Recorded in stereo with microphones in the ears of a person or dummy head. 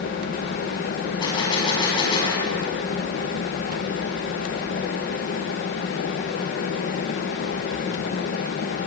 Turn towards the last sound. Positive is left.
turn(degrees=25)  # may be behind; listen again after turning